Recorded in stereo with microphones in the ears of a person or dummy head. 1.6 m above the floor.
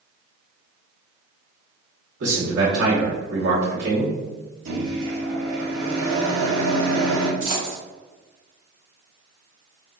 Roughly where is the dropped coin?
Right.